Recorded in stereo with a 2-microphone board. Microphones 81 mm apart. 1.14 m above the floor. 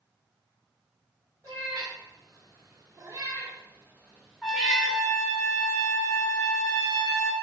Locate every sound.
1.4 s a cat meowing: 45° right (ahead or behind), 1.4 m; by 5.0 s 5° left (ahead or behind), 0.9 m
4.4 s a trumpet: 5° right (ahead or behind), 1.4 m